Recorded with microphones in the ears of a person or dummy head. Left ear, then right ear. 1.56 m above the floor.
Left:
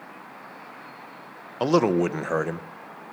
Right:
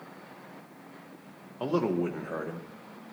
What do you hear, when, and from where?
1.6 s a man speaking: 80° left, 0.6 m